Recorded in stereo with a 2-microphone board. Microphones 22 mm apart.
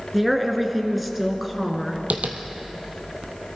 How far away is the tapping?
About 1.1 m.